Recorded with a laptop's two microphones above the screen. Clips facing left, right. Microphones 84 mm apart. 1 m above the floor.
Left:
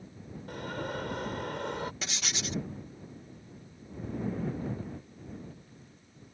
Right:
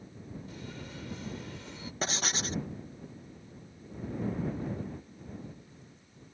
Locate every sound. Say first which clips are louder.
0.5 s an alarm: left 8 dB; 70° left (ahead or behind)
2.0 s writing: right 4 dB; 40° right (ahead or behind)